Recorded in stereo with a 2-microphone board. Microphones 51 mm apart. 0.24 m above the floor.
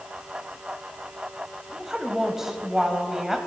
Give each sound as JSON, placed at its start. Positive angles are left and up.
{"t": 1.7, "sound": "a woman speaking", "side_deg": -10, "distance_m": 1.1}